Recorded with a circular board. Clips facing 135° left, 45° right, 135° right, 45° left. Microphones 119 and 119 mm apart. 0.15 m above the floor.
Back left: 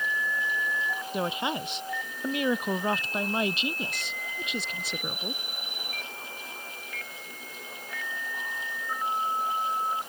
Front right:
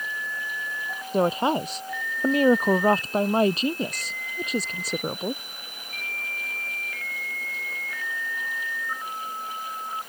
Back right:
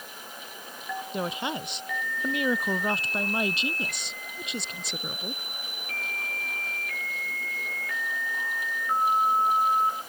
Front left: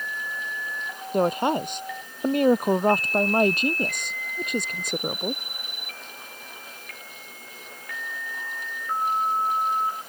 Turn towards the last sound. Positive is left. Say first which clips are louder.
# front right 9 dB, front left 11 dB
turn(degrees=5)